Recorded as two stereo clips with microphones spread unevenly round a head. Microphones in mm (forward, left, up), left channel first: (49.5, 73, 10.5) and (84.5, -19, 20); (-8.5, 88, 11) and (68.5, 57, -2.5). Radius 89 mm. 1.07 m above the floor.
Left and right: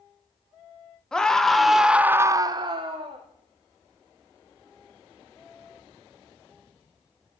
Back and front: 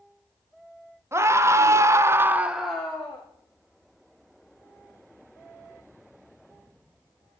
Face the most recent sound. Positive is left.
turn(degrees=-125)